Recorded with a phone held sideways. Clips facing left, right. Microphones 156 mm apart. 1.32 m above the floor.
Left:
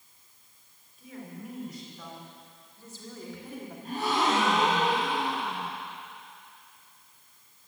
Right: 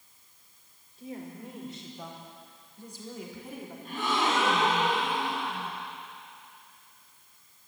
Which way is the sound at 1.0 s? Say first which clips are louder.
Right 2 dB; 30° right (ahead or behind).